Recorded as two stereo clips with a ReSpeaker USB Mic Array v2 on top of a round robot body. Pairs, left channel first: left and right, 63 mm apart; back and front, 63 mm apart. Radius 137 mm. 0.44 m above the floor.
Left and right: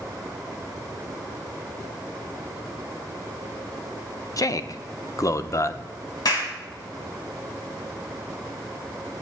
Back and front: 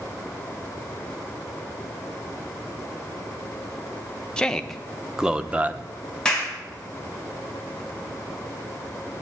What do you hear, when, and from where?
4.4 s a man speaking: 105° left, 1.2 m; by 5.9 s 50° left, 1.0 m
6.2 s a clap: 100° left, 4.5 m